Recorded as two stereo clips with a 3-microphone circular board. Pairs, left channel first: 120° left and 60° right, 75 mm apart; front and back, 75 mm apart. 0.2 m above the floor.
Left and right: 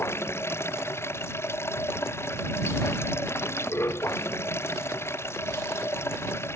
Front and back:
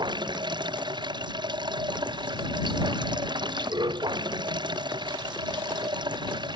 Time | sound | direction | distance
0.0 | running water | 175° left | ?